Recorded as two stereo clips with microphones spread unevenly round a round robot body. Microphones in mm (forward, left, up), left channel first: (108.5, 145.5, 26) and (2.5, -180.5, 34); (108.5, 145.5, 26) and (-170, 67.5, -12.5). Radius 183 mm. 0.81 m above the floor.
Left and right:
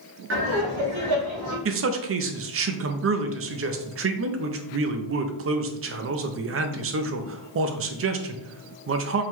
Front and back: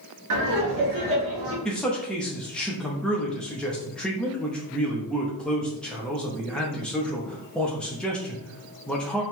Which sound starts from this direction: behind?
Laughter, at 0.3 s.